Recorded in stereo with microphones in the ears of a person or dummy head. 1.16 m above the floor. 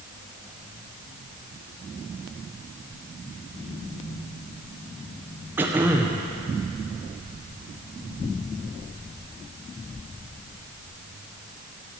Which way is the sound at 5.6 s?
10° right (ahead or behind).